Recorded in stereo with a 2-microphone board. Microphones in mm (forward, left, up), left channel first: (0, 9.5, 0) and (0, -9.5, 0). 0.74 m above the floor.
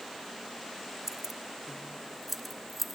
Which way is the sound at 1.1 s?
15° right (ahead or behind).